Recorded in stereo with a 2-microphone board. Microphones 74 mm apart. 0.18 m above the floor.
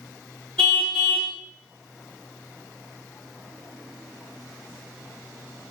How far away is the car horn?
About 5.5 m.